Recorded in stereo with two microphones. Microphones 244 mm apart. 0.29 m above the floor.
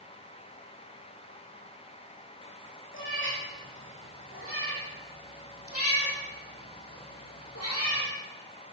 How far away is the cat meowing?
About 7.5 m.